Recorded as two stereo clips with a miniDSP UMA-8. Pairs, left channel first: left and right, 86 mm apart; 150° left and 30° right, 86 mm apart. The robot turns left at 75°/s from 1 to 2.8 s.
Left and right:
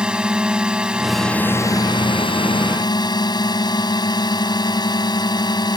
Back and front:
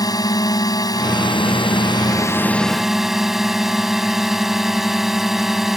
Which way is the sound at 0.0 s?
170° right.